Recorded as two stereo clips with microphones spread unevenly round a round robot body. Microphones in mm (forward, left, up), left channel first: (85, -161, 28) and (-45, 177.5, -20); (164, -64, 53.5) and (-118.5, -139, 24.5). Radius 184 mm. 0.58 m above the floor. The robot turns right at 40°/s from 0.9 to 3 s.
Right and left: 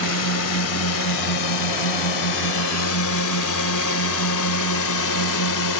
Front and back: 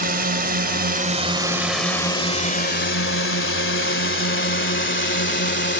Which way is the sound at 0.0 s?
110° right.